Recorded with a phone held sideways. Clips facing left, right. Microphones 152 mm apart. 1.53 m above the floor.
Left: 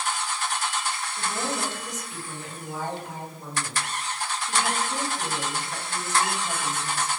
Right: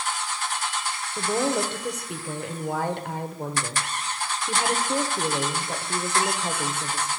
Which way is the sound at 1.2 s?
65° right (ahead or behind).